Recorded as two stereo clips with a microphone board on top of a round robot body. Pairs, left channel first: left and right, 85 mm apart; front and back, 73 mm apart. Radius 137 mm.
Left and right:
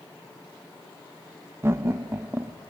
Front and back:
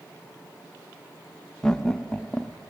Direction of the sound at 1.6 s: 70° right.